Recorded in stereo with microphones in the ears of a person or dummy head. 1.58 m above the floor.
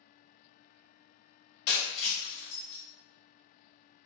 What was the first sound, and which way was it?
Breaking glass, 60° left (ahead or behind).